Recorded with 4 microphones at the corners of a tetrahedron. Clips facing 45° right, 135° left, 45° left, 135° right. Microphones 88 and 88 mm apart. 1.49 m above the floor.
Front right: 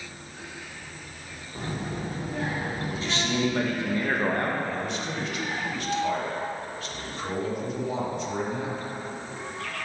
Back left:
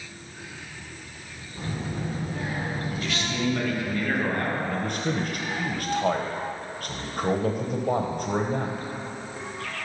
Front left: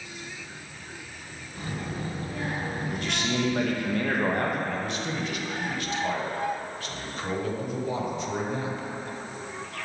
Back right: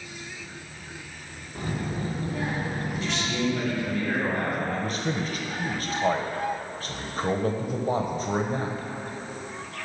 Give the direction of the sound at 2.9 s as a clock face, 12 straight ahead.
12 o'clock.